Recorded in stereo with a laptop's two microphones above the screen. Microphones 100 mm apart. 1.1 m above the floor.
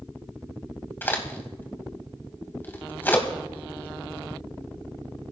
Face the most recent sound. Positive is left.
turn(degrees=20)  # may be behind; listen again after turning